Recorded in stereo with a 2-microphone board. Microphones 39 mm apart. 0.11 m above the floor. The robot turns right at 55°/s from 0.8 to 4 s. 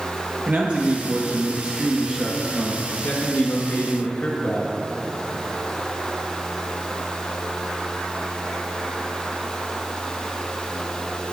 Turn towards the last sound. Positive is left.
turn(degrees=140)